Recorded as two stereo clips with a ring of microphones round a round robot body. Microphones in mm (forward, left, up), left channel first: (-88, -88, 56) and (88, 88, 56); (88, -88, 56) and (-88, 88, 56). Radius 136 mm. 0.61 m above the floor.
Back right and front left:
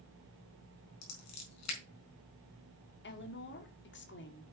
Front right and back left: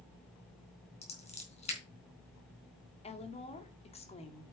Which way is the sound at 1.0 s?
110° right.